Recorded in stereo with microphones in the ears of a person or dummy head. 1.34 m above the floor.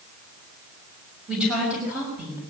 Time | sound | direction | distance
1.3 | a woman speaking | 5° right (ahead or behind) | 6.5 m